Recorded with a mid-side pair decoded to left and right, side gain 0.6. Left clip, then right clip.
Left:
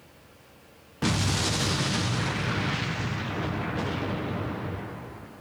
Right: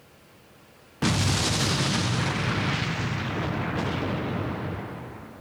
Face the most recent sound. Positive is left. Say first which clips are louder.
# right 2 dB
turn(degrees=-15)